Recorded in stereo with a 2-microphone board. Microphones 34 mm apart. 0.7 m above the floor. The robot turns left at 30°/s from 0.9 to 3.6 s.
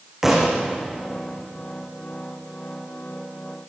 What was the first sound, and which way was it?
A thud, 10° right (ahead or behind).